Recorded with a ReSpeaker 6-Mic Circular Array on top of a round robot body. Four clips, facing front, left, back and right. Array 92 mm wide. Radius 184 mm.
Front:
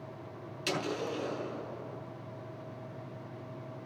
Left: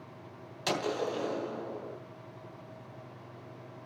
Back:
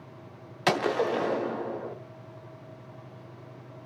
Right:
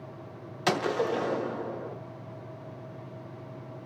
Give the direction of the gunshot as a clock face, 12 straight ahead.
5 o'clock.